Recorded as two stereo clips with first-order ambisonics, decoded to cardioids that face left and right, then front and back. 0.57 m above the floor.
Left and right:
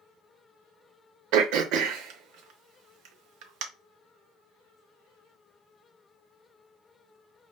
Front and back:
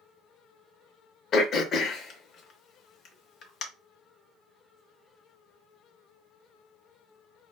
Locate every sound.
1.3 s throat clearing: 60° right, 0.6 m